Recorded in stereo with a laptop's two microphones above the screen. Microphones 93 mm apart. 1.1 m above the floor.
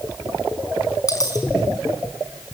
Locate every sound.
1.1 s a dropped coin: 40° left (ahead or behind), 4 m